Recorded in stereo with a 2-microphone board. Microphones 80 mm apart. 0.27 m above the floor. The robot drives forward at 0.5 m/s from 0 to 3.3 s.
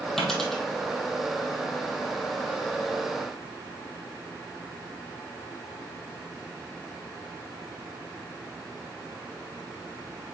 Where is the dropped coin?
5° left (ahead or behind), 2 m.